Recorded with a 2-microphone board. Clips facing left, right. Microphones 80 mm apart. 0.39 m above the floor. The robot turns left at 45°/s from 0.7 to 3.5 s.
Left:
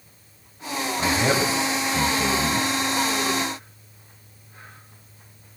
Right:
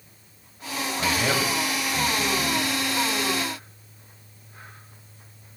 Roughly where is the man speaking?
Centre.